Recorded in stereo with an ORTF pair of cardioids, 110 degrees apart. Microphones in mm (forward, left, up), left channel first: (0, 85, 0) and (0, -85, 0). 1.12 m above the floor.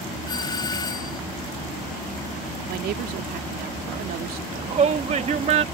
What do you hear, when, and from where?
0.3 s a doorbell: 25° left
2.7 s a woman speaking: 60° right
4.5 s a shout: 40° right